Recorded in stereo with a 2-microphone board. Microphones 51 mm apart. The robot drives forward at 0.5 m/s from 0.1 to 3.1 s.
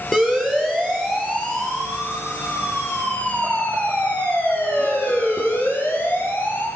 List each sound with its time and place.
0.1 s a siren: 10° left (ahead or behind), 8.5 m; by 6.7 s 40° left (ahead or behind), 10.5 m